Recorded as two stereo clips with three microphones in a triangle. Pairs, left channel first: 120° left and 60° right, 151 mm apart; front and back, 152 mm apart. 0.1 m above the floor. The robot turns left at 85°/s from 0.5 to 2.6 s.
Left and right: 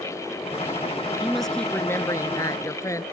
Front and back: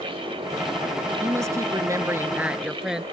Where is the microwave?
I don't hear a microwave.